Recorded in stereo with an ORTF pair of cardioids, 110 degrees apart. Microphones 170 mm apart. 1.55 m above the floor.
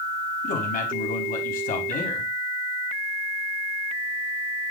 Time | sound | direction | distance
0.4 | a man speaking | 55° left | 4.5 m